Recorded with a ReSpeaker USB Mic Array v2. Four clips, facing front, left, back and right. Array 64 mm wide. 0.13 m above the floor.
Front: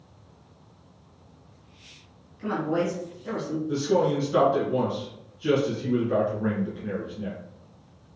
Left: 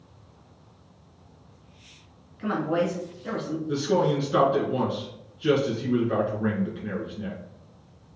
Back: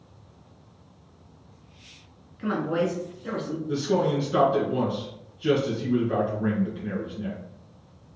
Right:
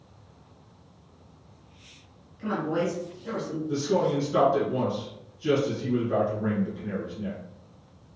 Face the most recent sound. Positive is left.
turn(degrees=100)